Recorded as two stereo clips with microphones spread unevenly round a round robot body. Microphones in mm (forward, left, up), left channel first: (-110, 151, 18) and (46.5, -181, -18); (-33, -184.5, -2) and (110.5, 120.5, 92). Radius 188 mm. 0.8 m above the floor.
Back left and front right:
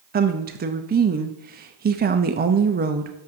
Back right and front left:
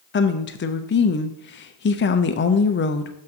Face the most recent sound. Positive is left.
turn(degrees=-115)